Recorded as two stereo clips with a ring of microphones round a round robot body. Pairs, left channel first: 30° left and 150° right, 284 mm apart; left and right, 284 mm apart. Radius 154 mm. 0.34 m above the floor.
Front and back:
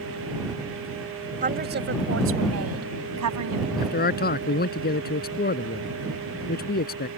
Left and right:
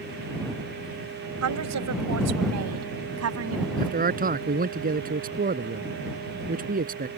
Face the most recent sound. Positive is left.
turn(degrees=-30)